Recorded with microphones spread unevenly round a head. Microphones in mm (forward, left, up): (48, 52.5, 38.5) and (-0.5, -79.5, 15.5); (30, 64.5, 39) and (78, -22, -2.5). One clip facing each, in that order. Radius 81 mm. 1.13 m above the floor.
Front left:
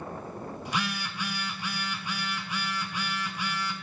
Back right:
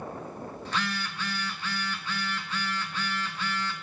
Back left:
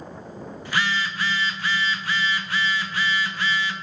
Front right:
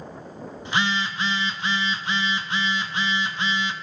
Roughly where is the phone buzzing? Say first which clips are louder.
Even, front right 1 dB; ahead left.